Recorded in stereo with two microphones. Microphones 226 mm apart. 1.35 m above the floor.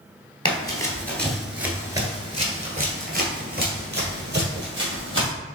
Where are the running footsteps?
20° left (ahead or behind), 1.5 m; by 5.3 s 50° right (ahead or behind), 3 m.